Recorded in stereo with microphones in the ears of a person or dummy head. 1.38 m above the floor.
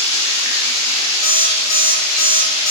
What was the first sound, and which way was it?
Running water, 75° left (ahead or behind).